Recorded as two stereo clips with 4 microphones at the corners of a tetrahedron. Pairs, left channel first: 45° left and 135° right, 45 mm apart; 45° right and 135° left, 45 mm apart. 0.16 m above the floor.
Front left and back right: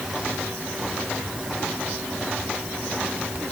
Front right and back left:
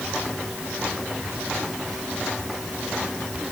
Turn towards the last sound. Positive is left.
No sound to turn to.